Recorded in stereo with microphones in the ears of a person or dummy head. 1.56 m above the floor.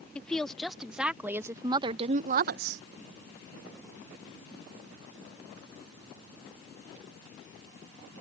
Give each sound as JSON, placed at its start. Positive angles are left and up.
{"t": 0.1, "sound": "a woman speaking", "side_deg": 5}